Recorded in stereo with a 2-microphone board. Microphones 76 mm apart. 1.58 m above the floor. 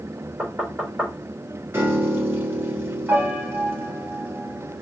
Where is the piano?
25° right (ahead or behind), 0.9 m.